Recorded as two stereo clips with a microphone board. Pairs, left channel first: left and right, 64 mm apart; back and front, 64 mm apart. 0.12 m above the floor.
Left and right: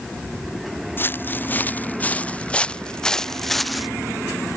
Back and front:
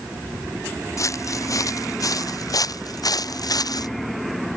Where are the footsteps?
145° left; by 3.9 s 175° right.